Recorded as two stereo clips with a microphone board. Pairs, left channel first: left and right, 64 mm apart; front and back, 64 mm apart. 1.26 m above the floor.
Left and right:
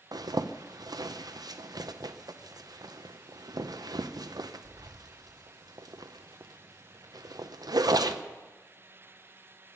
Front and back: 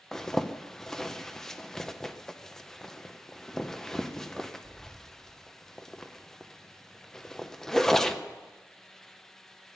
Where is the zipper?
85° right, 0.8 m.